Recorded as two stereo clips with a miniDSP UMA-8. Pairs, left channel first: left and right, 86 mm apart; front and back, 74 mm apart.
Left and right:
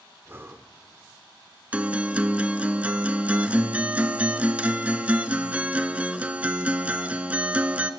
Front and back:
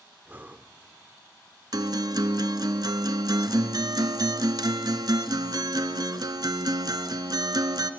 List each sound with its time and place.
0.2 s breathing: 135° right, 0.9 m
1.7 s a guitar: 165° right, 0.8 m